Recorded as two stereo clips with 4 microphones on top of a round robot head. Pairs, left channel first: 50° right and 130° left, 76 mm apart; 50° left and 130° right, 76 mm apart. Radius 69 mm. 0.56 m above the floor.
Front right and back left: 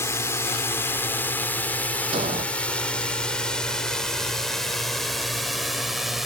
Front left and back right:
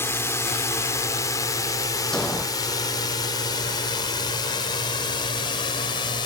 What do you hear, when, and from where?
0.0 s a drone: straight ahead; by 6.3 s 45° left
2.1 s an explosion: 130° left